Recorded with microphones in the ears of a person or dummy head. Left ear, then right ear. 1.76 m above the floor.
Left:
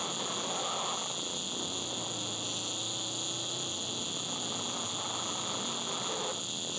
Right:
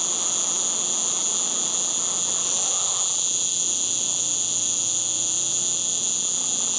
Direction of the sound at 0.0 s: 25° right (ahead or behind).